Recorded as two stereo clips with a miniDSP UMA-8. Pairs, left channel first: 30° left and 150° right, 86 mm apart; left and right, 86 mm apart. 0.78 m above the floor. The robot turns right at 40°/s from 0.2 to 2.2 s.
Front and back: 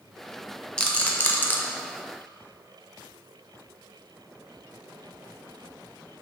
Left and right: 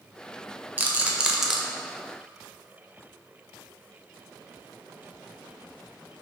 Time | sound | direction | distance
0.8 | a rattle | 40° right | 0.5 m